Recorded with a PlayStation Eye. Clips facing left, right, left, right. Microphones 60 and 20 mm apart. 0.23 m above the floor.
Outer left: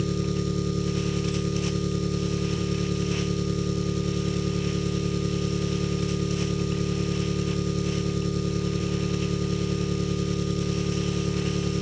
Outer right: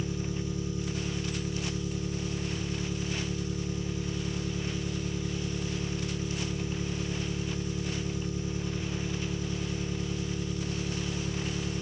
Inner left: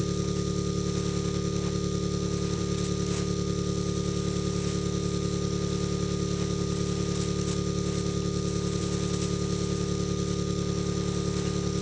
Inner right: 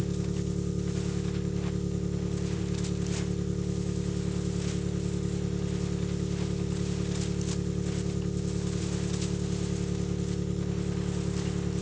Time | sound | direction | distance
0.0 | an engine running | 75° left (ahead or behind) | 1.1 m